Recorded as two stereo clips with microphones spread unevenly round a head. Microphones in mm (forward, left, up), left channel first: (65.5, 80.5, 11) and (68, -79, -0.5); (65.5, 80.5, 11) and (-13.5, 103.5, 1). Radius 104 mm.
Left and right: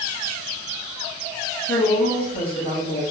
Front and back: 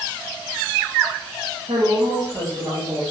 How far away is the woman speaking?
About 0.9 m.